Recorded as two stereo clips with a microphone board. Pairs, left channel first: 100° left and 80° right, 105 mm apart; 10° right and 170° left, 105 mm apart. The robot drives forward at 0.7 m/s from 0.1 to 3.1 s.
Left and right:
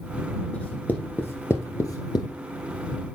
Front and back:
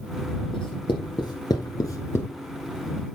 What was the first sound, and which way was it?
Writing, 25° left.